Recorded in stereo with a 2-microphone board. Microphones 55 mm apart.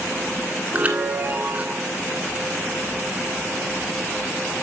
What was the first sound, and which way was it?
A chime, 30° right (ahead or behind).